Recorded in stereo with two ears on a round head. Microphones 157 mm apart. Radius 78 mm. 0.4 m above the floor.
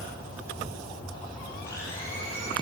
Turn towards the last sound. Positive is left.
turn(degrees=20)  # may be behind; listen again after turning